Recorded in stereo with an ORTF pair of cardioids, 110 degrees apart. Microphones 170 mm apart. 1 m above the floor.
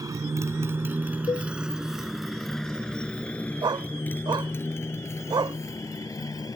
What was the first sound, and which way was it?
A motorcycle, 20° right.